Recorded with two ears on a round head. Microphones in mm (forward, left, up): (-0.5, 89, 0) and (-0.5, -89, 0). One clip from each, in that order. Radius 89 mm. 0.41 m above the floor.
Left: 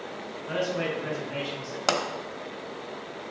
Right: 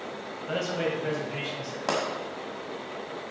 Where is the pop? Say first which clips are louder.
Left 3 dB; 50° left (ahead or behind), 1.1 m.